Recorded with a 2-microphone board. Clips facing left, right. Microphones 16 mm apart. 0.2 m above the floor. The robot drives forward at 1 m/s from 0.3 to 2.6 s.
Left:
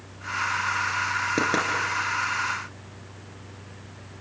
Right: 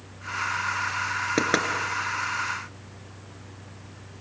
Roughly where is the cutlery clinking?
No cutlery clinking in this recording.